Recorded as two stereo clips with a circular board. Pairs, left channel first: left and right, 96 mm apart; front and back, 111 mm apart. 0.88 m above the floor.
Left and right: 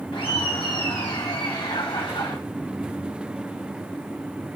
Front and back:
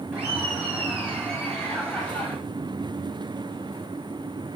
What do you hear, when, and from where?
0.1 s laughter: 95° left, 6.5 m; by 2.4 s 85° left, 6 m